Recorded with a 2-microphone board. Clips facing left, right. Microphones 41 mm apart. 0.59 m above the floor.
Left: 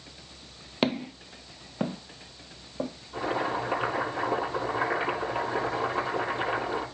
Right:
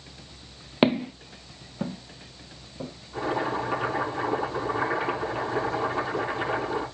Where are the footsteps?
20° right (ahead or behind), 0.7 m; by 2.9 s 45° left (ahead or behind), 1.8 m.